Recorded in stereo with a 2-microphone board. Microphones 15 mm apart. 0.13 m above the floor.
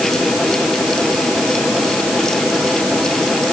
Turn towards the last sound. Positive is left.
No sound to turn to.